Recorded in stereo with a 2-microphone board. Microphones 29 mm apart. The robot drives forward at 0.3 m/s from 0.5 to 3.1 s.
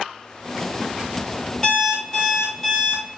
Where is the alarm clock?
5° left (ahead or behind), 1.7 m.